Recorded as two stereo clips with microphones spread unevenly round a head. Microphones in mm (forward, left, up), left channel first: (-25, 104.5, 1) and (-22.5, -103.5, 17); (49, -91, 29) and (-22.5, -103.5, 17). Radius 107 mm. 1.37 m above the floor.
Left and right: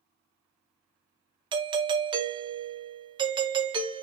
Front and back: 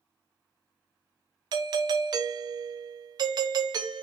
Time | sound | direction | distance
1.5 | a doorbell | 160° right | 0.6 m